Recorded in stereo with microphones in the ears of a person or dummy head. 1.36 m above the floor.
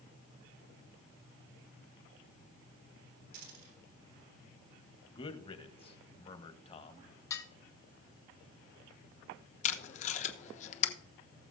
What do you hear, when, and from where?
3.3 s a dropped coin: 65° right (ahead or behind), 4 m
5.1 s a man speaking: 35° left (ahead or behind), 0.9 m
7.3 s dishes clattering: 15° left (ahead or behind), 1.1 m
9.6 s tape being pulled: 40° left (ahead or behind), 0.8 m